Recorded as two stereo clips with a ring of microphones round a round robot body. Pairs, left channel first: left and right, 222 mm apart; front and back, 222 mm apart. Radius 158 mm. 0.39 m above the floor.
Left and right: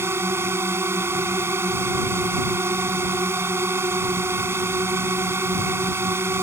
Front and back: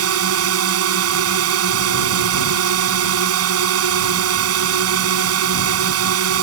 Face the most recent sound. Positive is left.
turn(degrees=-170)